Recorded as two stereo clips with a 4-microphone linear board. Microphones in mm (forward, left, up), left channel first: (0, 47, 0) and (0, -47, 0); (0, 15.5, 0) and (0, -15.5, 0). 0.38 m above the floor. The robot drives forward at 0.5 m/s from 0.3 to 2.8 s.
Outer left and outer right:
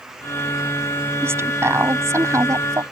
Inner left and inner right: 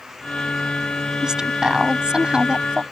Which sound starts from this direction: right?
A woman speaking, at 1.2 s.